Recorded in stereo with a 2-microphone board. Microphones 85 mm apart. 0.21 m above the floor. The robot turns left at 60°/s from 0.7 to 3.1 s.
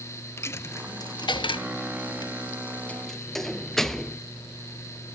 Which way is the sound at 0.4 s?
30° left (ahead or behind).